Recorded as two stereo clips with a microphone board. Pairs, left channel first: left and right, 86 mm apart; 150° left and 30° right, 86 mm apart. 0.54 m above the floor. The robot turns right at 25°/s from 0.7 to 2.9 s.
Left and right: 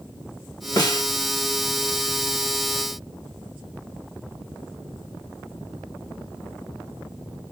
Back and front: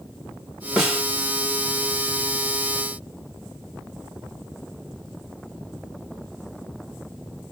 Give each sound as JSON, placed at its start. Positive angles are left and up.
{"t": 0.8, "sound": "a snare drum", "azimuth_deg": 55, "distance_m": 1.4}